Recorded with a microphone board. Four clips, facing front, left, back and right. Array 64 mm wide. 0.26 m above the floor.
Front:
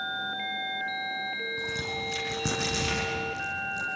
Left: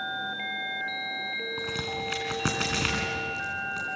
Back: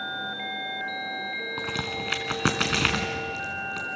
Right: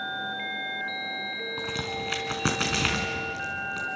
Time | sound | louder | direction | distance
1.6 | a crack | even, back 2 dB | 175° right | 3 m